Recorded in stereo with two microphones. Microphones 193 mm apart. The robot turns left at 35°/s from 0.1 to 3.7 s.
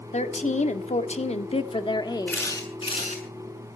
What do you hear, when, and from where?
0.1 s a woman speaking: 105° left, 1.4 m; by 2.6 s 20° left, 1.4 m
2.3 s a camera shutter: 170° left, 6.5 m; by 3.2 s 140° left, 6.5 m